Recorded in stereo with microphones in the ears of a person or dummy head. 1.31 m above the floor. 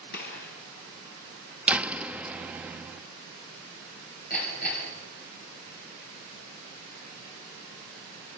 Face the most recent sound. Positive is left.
turn(degrees=45)  # may be behind; listen again after turning